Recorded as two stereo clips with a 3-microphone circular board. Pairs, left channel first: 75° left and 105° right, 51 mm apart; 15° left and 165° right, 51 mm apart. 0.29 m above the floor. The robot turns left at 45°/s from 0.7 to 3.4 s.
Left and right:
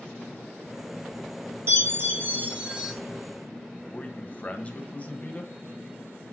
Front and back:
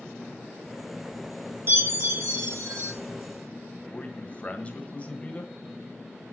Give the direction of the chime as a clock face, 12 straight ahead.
4 o'clock.